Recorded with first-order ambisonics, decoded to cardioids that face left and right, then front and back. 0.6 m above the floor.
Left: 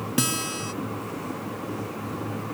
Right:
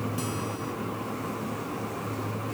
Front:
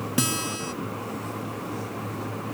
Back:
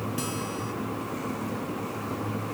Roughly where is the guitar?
Ahead left.